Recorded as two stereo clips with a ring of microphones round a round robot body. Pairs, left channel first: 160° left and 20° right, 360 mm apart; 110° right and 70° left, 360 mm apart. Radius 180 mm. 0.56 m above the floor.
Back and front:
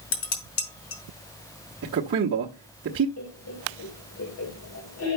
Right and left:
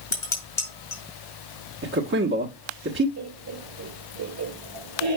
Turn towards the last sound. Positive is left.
turn(degrees=110)